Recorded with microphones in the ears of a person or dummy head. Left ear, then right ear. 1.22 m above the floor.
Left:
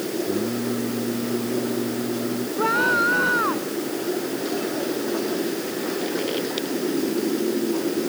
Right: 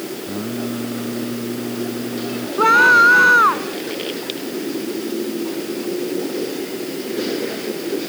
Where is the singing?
45° right (ahead or behind).